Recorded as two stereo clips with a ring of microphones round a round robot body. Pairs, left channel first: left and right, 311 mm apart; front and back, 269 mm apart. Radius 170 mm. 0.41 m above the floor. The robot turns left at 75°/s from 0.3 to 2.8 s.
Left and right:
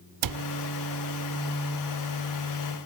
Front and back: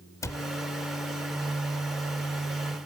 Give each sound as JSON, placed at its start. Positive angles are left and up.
{"t": 0.2, "sound": "a cupboard door", "azimuth_deg": -80, "distance_m": 0.6}